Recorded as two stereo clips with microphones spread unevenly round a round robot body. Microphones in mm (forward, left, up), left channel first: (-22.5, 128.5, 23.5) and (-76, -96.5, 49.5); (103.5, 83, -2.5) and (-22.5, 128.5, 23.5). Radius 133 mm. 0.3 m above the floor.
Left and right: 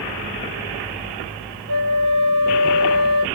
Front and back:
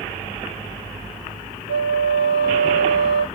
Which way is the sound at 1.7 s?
70° right.